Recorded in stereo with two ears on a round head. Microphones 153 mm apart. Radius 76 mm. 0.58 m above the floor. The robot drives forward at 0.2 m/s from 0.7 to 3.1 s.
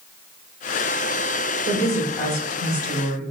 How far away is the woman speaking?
About 1.7 m.